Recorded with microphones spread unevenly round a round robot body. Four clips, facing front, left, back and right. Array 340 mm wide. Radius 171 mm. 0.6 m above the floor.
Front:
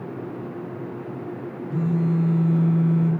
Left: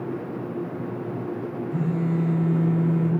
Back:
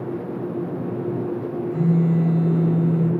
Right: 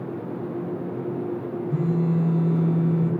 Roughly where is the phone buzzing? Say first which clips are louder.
Right 2 dB, back 3 dB; right.